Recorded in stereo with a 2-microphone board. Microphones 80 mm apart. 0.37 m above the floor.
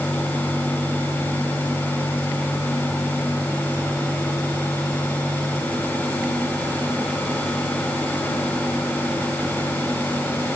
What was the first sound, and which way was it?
Only background noise.